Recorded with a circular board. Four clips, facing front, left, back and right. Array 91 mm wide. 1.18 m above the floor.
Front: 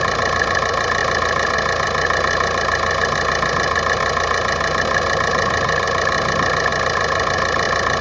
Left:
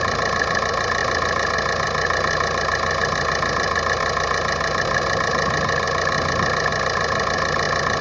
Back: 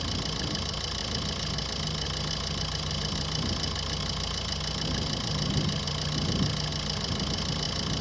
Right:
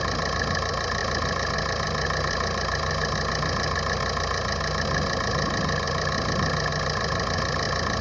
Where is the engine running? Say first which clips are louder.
Left 6 dB, front 17 dB; 25° left.